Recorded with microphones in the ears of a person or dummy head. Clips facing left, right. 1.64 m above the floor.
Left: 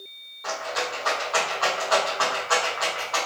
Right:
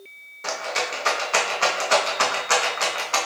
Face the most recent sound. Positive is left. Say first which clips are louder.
# right 1 dB
turn(degrees=-40)  # may be behind; listen again after turning